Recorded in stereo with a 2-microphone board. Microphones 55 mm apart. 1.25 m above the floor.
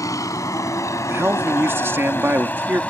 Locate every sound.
0.0 s a vehicle: 80° left; by 2.9 s 25° left (ahead or behind)
1.1 s a man speaking: 45° right (ahead or behind)